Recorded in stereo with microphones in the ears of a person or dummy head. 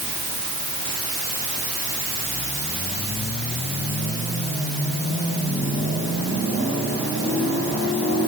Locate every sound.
Only background noise.